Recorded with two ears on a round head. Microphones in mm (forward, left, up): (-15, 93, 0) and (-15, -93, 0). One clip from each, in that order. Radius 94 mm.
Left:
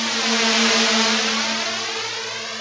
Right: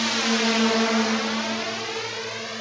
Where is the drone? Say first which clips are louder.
Left 3 dB; 20° left (ahead or behind); by 2.6 s 30° left (ahead or behind).